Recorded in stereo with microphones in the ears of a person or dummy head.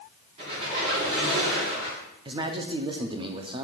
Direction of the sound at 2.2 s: 30° right (ahead or behind).